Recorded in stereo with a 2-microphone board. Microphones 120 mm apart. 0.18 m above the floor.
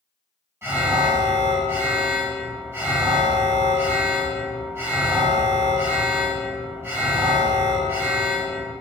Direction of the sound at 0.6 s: 20° right (ahead or behind).